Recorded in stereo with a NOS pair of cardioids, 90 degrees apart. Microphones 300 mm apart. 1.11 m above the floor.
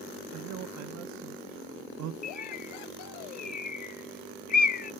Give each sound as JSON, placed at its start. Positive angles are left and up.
{"t": 0.3, "sound": "a man speaking", "azimuth_deg": -70, "distance_m": 0.7}
{"t": 2.2, "sound": "a bird", "azimuth_deg": 30, "distance_m": 0.6}